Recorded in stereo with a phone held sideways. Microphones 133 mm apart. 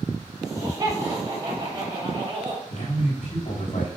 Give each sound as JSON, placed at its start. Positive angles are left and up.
{"t": 0.4, "sound": "laughter", "side_deg": -30, "distance_m": 4.0}
{"t": 2.7, "sound": "a man speaking", "side_deg": 75, "distance_m": 3.5}